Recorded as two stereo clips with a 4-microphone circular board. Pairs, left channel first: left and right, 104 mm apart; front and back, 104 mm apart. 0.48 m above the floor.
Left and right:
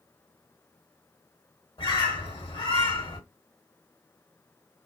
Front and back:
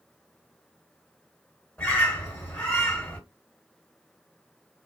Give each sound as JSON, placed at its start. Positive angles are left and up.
{"t": 1.8, "sound": "a bird", "azimuth_deg": 80, "distance_m": 2.5}